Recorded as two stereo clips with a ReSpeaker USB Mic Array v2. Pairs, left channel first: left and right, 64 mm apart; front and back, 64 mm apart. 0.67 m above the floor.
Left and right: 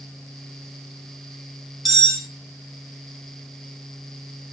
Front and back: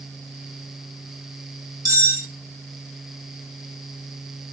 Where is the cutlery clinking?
Straight behind, 1.3 m.